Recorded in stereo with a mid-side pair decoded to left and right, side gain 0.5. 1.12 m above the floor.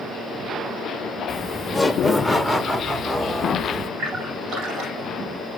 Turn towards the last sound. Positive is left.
turn(degrees=-65)